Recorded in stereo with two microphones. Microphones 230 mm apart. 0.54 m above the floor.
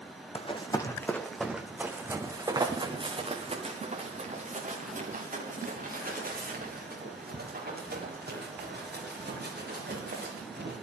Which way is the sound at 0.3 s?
25° left (ahead or behind).